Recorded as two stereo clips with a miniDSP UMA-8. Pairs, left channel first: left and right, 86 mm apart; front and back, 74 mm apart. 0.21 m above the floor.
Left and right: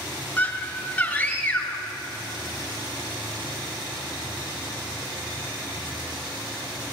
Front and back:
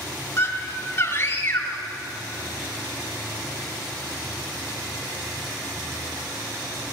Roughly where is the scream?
Ahead left.